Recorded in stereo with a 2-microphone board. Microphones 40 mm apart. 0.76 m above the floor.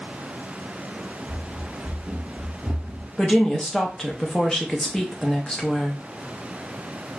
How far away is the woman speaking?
About 0.6 m.